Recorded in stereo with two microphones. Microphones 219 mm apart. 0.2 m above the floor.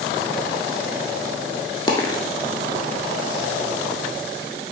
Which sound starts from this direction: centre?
A dropped coin, at 1.9 s.